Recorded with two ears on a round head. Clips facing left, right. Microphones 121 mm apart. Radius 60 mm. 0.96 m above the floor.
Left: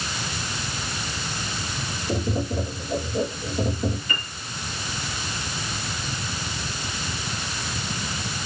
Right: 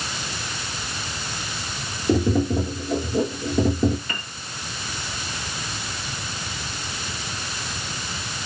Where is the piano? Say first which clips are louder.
Left 1 dB; 55° right (ahead or behind), 9 m.